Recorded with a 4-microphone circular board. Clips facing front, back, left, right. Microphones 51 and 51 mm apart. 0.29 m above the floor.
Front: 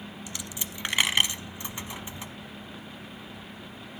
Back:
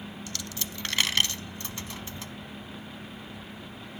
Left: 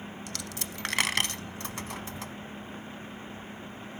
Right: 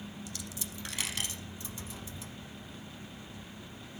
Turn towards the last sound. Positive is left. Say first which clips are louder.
# even, left 5 dB
turn(degrees=70)